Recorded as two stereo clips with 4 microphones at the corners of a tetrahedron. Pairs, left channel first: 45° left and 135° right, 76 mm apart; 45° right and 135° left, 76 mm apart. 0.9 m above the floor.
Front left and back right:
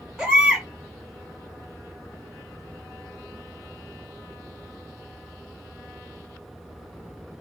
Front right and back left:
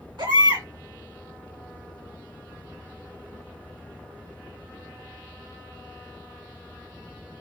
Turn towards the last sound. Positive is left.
turn(degrees=145)